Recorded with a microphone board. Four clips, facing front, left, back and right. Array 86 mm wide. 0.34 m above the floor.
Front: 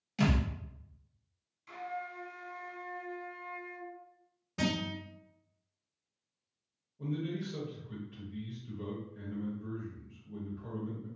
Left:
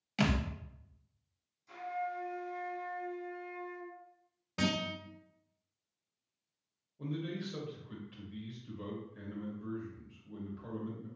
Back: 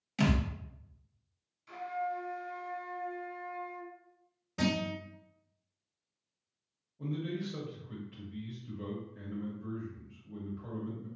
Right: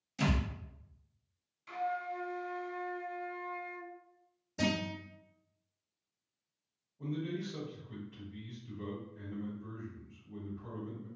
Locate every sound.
0.2 s a thud: 100° left, 0.8 m
1.7 s a flute: 75° right, 0.8 m
4.6 s a guitar: 90° left, 1.9 m
7.0 s a man speaking: 95° left, 1.0 m